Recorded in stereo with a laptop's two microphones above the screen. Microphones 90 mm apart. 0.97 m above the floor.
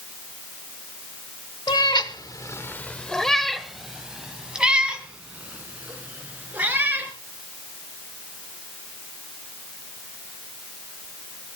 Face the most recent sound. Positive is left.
turn(degrees=-15)  # may be behind; listen again after turning